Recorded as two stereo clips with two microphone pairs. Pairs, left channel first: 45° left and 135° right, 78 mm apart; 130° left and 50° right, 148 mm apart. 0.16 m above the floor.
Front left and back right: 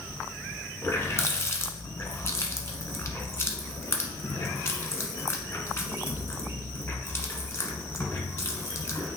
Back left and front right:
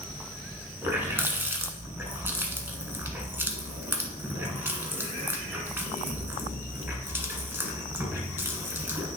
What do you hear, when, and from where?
0.8 s a running tap: 20° left, 1.2 m